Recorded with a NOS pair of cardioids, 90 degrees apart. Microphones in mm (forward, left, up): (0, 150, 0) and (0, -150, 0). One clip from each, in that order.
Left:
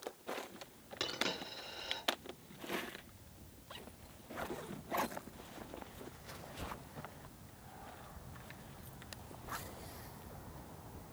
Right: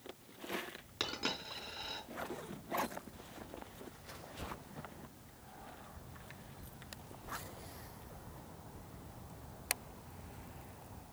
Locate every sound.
1.0 s a dropped coin: 25° right, 4 m